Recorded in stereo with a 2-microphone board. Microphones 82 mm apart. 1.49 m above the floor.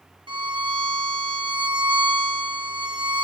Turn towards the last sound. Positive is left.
turn(degrees=-85)